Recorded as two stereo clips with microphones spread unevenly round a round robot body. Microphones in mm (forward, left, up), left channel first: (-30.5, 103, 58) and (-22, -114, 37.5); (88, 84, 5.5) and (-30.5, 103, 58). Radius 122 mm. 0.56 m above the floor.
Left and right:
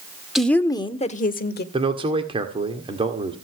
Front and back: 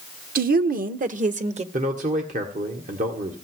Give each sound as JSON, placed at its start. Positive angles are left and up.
{"t": 0.3, "sound": "a woman speaking", "azimuth_deg": -175, "distance_m": 1.4}
{"t": 1.7, "sound": "a man speaking", "azimuth_deg": -145, "distance_m": 1.7}